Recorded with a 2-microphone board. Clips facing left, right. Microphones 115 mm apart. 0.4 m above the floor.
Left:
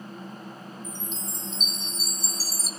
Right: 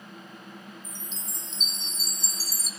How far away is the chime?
About 1.2 m.